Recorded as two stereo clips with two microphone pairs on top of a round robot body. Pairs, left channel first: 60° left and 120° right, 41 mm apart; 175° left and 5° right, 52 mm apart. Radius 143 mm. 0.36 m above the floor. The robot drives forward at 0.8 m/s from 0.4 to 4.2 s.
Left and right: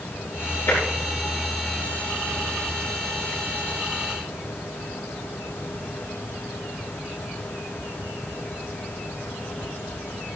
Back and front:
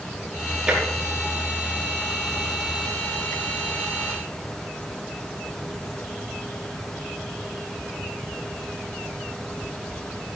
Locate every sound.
0.7 s tapping: 65° left, 6 m; by 0.8 s 70° left, 6 m